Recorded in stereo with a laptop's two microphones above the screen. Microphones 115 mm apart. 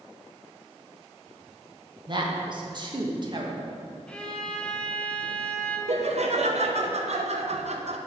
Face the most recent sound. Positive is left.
turn(degrees=-65)  # may be behind; listen again after turning